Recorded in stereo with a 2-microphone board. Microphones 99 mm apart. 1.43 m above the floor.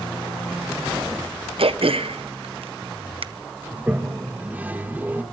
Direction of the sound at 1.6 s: 70° right (ahead or behind).